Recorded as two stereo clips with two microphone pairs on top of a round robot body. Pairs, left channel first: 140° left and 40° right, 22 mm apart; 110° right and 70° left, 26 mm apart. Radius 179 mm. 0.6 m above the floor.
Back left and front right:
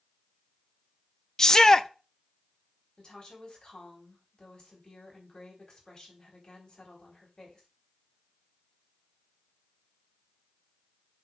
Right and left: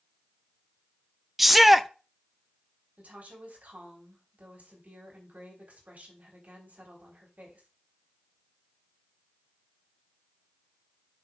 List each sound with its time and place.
1.4 s a shout: 140° left, 0.9 m
3.0 s a woman speaking: 90° left, 4 m